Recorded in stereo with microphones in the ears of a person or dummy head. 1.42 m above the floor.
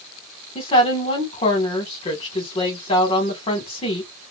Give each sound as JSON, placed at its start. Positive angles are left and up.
{"t": 0.6, "sound": "a woman speaking", "side_deg": 25, "distance_m": 1.6}